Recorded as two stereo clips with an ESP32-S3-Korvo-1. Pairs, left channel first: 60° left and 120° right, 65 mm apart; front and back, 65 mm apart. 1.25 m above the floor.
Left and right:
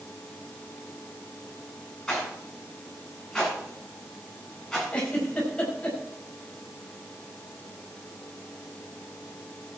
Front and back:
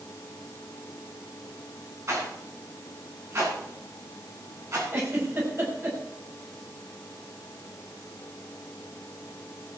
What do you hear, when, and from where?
2.1 s a rattle: 140° left, 9.5 m
4.9 s a giggle: 130° left, 5.5 m